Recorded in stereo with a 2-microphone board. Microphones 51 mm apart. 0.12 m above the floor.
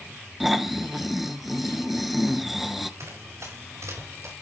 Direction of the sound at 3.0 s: 60° right (ahead or behind).